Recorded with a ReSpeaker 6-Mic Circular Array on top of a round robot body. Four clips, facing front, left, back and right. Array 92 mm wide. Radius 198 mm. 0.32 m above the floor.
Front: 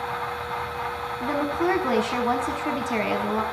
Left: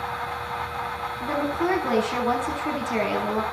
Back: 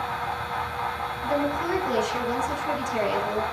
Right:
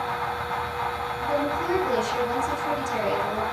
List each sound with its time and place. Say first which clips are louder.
1.2 s a woman speaking: left 1 dB, front 2 dB; 25° left, 6 m